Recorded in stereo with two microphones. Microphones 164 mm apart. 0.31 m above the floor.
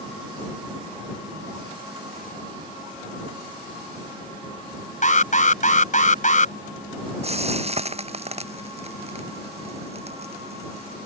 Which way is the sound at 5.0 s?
50° left (ahead or behind).